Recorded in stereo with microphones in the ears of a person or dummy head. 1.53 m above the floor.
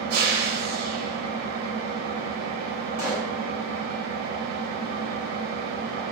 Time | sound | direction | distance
0.0 | an engine running | 50° right (ahead or behind) | 0.8 m
3.0 | a pop | 45° left (ahead or behind) | 1.0 m